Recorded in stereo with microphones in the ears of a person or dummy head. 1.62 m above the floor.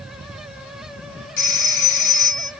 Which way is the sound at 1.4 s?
60° left (ahead or behind).